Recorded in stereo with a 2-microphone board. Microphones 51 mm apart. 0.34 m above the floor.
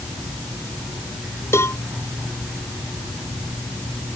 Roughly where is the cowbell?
Left.